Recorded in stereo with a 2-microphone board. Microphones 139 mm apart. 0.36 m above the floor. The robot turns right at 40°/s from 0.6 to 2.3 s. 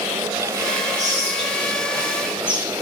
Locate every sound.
1.0 s whispering: 60° right, 2.5 m; by 2.7 s 10° right, 2.5 m